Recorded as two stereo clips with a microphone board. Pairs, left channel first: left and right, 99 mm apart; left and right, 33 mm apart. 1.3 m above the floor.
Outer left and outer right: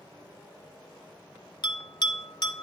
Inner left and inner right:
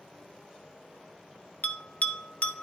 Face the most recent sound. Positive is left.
turn(degrees=50)  # may be behind; listen again after turning